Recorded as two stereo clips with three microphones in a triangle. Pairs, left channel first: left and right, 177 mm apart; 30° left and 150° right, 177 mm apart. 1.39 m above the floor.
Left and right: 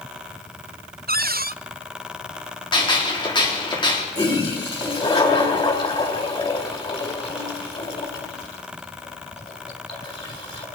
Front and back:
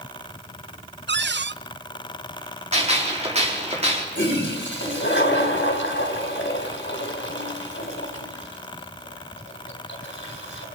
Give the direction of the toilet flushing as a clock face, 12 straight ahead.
11 o'clock.